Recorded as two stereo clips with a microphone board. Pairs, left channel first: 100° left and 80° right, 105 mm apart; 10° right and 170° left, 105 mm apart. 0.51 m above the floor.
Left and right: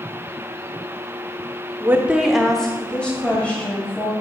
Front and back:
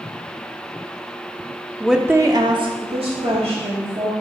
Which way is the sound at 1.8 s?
90° right.